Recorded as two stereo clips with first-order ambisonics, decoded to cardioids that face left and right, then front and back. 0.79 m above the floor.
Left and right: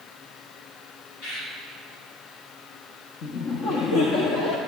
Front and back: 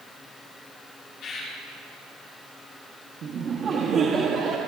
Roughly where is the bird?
Ahead left.